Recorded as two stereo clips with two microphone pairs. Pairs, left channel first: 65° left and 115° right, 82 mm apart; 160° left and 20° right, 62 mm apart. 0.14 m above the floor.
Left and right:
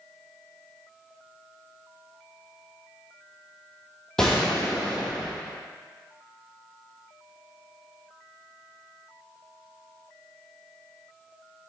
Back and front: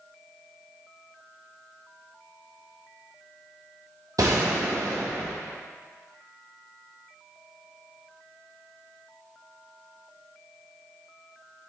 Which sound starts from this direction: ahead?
A gunshot, at 4.2 s.